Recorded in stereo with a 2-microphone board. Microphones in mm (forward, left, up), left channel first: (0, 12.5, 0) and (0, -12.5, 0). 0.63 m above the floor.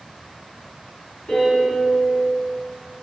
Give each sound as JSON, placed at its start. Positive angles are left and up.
{"t": 1.3, "sound": "a piano", "side_deg": 50, "distance_m": 0.9}